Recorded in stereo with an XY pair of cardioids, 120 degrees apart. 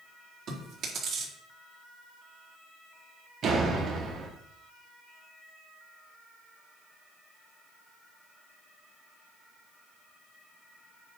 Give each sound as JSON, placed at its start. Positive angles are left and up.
{"t": 0.5, "sound": "chewing", "azimuth_deg": -60, "distance_m": 4.0}
{"t": 3.4, "sound": "a door slam", "azimuth_deg": -55, "distance_m": 2.5}